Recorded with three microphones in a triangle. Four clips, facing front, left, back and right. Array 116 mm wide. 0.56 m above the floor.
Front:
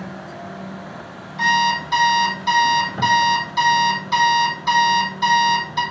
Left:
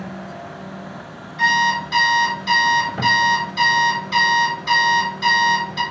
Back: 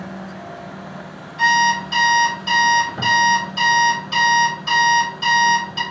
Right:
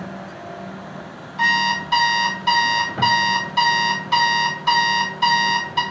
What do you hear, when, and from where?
1.4 s an alarm clock: 75° right, 1.9 m